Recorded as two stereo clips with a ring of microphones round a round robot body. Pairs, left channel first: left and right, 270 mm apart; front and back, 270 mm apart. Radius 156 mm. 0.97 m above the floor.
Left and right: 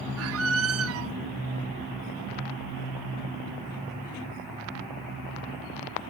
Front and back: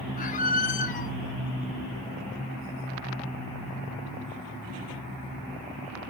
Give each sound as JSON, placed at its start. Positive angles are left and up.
{"t": 0.2, "sound": "a squeak", "azimuth_deg": -60, "distance_m": 0.8}